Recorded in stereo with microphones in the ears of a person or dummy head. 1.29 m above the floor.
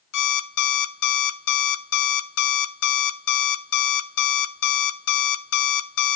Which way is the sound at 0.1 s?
60° left (ahead or behind).